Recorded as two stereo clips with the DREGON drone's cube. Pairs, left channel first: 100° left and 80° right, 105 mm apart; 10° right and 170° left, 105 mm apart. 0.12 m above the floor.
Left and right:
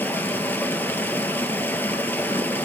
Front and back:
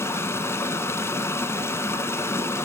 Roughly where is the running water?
Ahead left.